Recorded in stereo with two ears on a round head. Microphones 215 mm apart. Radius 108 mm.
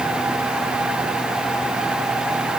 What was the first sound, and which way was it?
Only background noise.